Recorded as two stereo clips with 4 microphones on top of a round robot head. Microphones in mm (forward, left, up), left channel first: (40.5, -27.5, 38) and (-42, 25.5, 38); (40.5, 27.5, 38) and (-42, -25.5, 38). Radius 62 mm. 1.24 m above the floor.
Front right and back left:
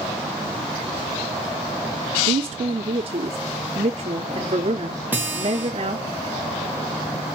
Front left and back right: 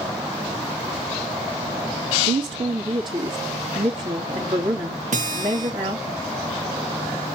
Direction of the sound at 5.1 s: 140° right.